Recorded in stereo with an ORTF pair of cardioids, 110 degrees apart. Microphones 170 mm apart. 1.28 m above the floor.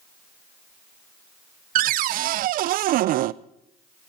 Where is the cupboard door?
65° right, 0.5 m.